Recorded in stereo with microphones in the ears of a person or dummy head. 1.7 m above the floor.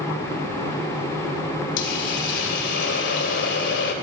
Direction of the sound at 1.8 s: 60° left (ahead or behind).